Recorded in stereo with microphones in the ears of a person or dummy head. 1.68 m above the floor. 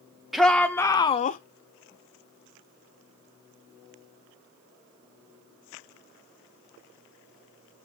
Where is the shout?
5° left (ahead or behind), 0.8 m; by 1.4 s 45° left (ahead or behind), 0.5 m.